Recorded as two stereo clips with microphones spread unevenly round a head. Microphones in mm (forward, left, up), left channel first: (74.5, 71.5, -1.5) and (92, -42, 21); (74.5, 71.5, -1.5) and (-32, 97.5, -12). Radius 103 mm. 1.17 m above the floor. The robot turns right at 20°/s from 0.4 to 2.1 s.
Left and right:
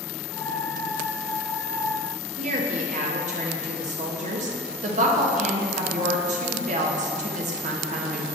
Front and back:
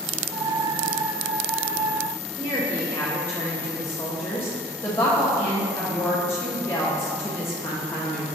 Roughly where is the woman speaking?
Right.